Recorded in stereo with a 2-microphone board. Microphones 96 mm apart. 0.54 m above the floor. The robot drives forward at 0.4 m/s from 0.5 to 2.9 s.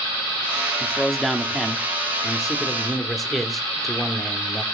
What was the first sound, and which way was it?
A man speaking, centre (ahead or behind).